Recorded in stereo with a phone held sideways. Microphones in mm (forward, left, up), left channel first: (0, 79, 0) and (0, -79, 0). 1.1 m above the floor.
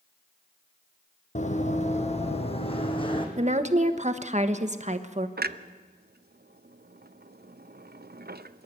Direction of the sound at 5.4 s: 80° right.